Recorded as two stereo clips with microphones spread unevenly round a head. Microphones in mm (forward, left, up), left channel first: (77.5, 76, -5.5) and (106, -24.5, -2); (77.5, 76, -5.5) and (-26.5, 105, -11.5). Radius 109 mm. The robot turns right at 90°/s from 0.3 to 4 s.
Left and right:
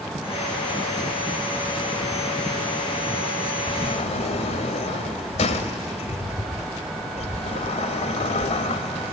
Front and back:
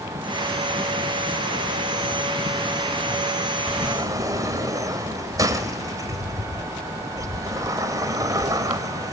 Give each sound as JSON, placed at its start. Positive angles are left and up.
{"t": 3.7, "sound": "a sliding door", "azimuth_deg": 80, "distance_m": 1.7}